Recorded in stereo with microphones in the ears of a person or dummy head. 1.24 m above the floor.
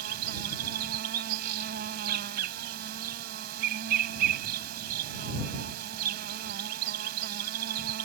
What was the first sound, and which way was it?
An insect, 55° right (ahead or behind).